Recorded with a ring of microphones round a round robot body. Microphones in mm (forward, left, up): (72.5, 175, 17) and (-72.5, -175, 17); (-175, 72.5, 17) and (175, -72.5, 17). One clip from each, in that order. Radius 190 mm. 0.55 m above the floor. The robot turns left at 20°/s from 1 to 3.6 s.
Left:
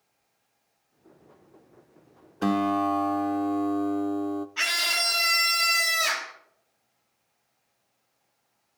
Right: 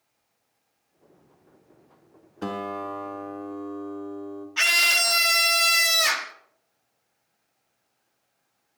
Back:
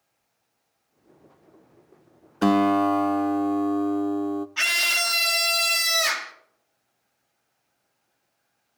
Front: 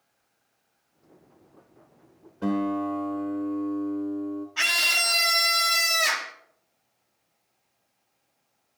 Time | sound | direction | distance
2.4 | a guitar | 145° left | 0.6 m
4.6 | a scream | 140° right | 1.0 m